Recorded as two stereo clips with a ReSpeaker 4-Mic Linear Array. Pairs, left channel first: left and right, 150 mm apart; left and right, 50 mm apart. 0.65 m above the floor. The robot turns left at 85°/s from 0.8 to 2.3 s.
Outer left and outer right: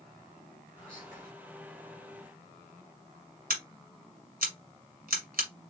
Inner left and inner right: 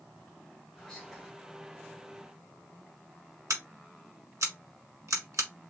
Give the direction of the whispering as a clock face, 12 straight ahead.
11 o'clock.